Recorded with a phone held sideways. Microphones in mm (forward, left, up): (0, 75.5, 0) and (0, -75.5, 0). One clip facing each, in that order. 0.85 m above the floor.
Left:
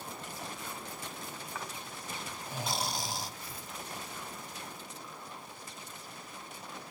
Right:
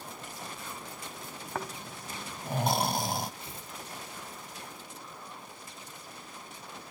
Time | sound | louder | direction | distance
1.6 | snoring | right 9 dB | 55° right (ahead or behind) | 1.0 m
3.4 | tearing paper | even | 25° right (ahead or behind) | 1.7 m